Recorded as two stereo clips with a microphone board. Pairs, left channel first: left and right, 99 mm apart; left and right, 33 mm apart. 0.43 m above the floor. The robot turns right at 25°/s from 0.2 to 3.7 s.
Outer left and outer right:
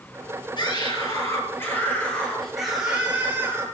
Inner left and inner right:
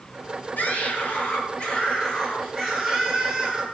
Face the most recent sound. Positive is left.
turn(degrees=-150)